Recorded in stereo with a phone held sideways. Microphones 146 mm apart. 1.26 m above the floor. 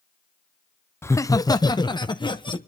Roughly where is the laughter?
Centre.